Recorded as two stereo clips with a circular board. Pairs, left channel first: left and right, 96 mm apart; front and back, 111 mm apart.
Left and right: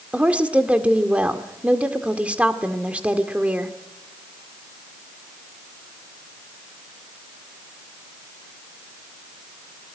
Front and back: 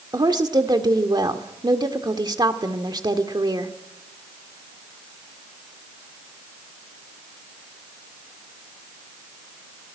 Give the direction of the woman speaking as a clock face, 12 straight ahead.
5 o'clock.